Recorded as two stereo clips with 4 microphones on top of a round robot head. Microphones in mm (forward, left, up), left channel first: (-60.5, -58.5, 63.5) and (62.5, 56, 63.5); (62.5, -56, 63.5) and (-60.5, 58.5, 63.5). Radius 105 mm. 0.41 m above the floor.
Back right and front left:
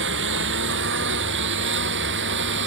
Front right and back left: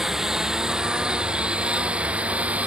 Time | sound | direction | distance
0.0 | a lawn mower | 50° left | ?